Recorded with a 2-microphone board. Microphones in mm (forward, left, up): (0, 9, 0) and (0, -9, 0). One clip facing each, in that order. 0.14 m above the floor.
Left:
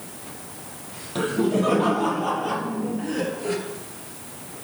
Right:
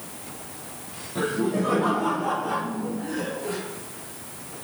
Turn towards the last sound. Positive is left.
turn(degrees=25)  # may be behind; listen again after turning